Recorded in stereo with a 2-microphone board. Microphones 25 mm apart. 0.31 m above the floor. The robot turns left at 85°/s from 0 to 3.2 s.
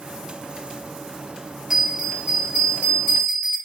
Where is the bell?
20° right, 2.5 m; by 3.6 s 145° right, 2.5 m.